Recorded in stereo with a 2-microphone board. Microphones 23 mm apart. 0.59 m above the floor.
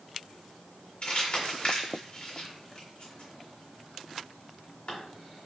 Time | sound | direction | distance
1.0 | crumpling | 50° left (ahead or behind) | 1.6 m